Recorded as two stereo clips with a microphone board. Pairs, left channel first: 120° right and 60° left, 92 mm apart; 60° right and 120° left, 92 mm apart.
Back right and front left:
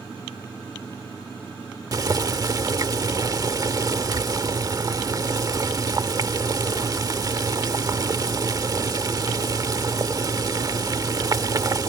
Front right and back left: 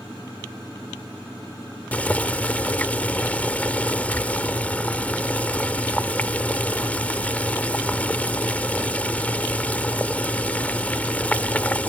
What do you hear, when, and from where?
1.9 s boiling: 15° left